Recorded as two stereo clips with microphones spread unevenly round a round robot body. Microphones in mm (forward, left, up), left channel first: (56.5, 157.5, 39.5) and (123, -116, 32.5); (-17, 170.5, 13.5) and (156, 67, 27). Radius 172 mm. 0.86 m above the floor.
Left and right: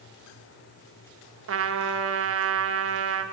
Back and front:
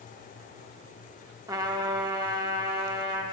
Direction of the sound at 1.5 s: 110° right.